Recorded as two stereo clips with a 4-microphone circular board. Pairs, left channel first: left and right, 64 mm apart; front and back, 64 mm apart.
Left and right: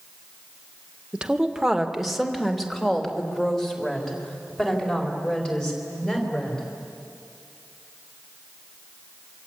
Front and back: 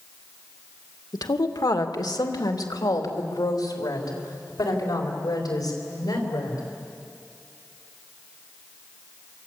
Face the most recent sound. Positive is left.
turn(degrees=15)